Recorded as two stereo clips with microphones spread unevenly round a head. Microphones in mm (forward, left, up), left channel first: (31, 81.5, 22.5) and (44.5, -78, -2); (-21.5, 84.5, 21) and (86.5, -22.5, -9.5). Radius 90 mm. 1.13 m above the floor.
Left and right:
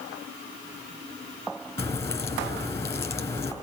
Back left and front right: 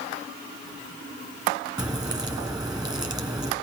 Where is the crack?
25° left, 2.5 m.